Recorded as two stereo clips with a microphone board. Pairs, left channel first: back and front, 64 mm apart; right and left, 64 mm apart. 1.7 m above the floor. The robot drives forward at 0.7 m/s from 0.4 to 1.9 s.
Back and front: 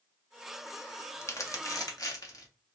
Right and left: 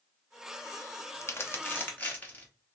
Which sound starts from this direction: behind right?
Crumpling, at 1.2 s.